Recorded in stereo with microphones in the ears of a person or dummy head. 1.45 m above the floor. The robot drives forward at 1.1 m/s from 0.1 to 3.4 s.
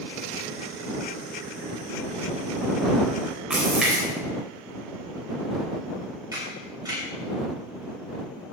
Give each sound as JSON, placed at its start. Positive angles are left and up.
{"t": 3.5, "sound": "a splash", "side_deg": 0, "distance_m": 3.5}
{"t": 6.3, "sound": "a camera shutter", "side_deg": -15, "distance_m": 4.5}